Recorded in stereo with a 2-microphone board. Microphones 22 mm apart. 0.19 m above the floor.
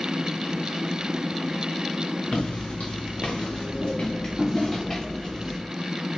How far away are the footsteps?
About 0.7 m.